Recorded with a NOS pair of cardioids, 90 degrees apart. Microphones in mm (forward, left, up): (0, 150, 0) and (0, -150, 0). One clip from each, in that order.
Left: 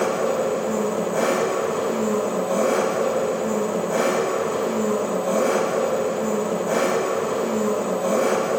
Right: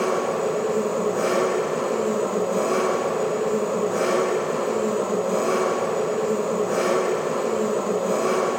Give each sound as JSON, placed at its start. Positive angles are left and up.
{"t": 0.0, "sound": "an engine running", "azimuth_deg": 45, "distance_m": 6.0}